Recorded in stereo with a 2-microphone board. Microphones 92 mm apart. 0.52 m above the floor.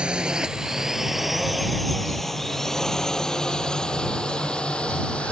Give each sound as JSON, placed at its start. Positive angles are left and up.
{"t": 0.0, "sound": "a drone", "side_deg": -10}